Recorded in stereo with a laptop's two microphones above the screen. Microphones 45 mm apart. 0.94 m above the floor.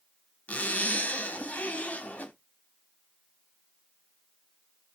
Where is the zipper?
30° left (ahead or behind), 1.1 m.